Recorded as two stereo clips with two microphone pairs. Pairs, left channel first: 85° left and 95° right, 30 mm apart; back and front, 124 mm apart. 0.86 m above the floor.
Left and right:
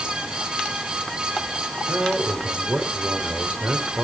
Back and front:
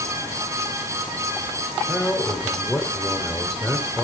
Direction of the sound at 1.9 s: 95° right.